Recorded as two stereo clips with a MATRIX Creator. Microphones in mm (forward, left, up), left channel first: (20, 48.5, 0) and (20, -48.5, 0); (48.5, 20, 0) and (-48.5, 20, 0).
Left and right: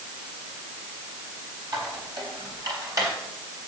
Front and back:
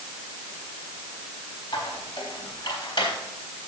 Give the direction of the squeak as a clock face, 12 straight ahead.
1 o'clock.